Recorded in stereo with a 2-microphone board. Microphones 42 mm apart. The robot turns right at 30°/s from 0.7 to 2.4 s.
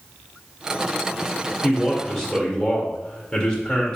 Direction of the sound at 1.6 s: Centre (ahead or behind).